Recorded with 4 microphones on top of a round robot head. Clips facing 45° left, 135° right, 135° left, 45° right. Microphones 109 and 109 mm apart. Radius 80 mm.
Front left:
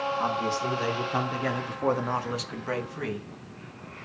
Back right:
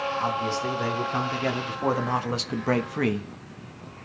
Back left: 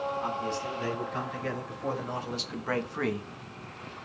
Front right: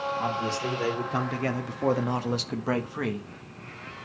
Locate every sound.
0.2 s a man speaking: 30° right, 4 m; by 3.3 s 150° right, 1.4 m